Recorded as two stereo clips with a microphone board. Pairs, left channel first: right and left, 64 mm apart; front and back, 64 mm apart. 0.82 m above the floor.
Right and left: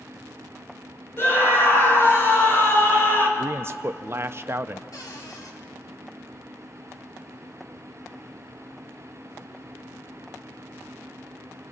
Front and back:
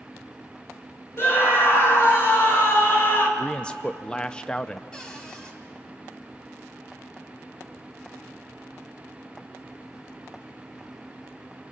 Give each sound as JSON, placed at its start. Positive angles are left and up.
{"t": 1.2, "sound": "a scream", "azimuth_deg": -45, "distance_m": 4.0}
{"t": 3.4, "sound": "a man speaking", "azimuth_deg": 70, "distance_m": 0.5}
{"t": 4.9, "sound": "a cupboard door", "azimuth_deg": -75, "distance_m": 2.5}